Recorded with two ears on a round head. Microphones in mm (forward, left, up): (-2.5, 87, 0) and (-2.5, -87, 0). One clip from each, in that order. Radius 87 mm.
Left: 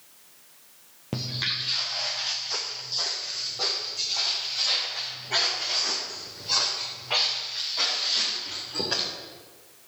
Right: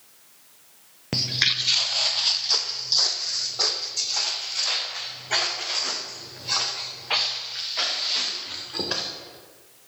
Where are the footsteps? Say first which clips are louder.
Right 6 dB; 45° right (ahead or behind), 0.9 m.